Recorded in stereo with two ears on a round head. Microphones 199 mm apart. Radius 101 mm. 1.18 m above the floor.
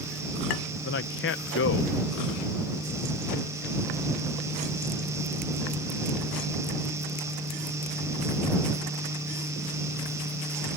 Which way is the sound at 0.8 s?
55° left (ahead or behind).